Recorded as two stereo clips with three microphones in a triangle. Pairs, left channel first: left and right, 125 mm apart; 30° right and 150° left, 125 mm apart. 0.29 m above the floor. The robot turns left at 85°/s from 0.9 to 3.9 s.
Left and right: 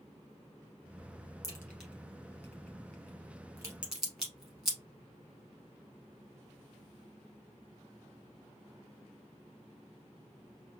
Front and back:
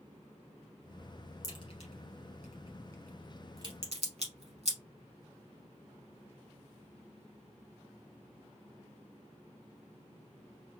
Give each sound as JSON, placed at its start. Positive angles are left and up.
{"t": 1.4, "sound": "a crack", "azimuth_deg": 35, "distance_m": 2.0}